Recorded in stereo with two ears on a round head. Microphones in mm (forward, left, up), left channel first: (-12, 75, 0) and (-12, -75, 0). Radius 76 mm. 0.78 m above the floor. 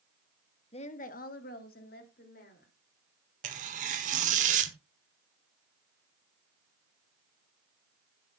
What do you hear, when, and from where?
0.7 s a woman speaking: 35° left (ahead or behind), 1.1 m; by 2.7 s 55° left (ahead or behind), 3.5 m
3.4 s tearing paper: 45° right (ahead or behind), 1.4 m